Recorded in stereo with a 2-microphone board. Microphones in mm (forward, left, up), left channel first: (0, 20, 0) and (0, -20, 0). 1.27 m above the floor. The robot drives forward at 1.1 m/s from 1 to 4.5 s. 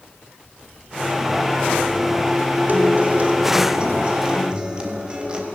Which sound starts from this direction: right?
A guitar, at 2.7 s.